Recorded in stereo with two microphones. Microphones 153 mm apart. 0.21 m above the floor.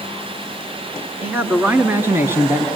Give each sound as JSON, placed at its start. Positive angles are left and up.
{"t": 1.2, "sound": "a man speaking", "side_deg": -10, "distance_m": 2.5}